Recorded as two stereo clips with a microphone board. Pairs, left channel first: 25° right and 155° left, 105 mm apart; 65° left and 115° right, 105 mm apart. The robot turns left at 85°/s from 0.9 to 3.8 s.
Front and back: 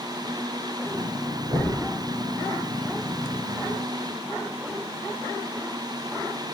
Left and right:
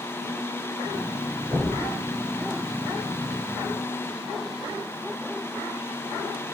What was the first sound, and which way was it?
Knocking, 175° right.